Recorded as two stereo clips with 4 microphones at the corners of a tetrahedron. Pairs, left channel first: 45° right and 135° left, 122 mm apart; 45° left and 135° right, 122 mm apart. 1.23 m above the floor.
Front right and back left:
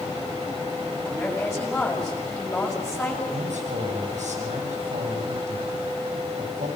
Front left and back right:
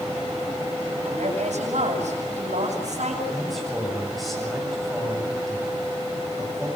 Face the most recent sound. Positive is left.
turn(degrees=135)